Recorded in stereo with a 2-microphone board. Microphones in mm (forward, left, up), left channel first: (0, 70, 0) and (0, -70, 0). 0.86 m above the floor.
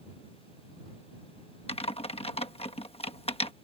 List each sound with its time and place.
1.7 s typing on a keyboard: 45° left (ahead or behind)